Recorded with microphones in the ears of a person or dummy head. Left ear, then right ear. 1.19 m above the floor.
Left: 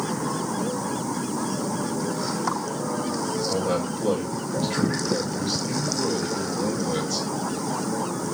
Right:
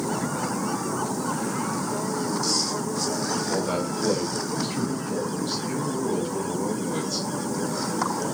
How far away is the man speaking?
About 4 m.